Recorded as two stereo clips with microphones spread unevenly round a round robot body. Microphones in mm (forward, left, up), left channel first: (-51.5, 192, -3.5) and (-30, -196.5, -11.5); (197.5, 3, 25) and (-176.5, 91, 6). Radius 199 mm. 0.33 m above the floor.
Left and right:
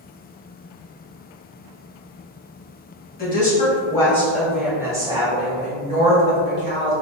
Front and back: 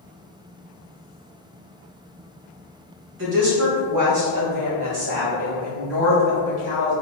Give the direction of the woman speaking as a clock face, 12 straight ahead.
7 o'clock.